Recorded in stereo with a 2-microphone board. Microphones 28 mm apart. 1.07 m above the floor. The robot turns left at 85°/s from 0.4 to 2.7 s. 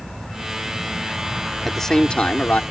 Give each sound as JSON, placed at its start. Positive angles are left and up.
{"t": 1.6, "sound": "a man speaking", "azimuth_deg": 180}